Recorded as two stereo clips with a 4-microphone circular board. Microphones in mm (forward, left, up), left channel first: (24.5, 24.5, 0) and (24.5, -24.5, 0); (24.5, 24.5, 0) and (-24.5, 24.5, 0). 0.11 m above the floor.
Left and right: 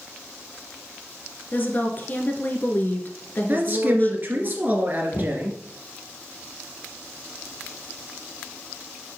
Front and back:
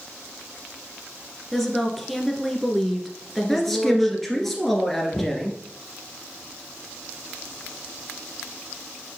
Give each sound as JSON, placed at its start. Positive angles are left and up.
{"t": 1.5, "sound": "a woman speaking", "azimuth_deg": 80, "distance_m": 1.3}
{"t": 3.5, "sound": "a man speaking", "azimuth_deg": -80, "distance_m": 2.0}
{"t": 5.1, "sound": "knocking", "azimuth_deg": 60, "distance_m": 1.2}